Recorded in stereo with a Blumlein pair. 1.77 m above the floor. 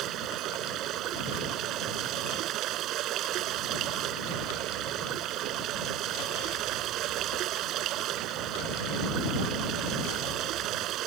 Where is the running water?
35° right.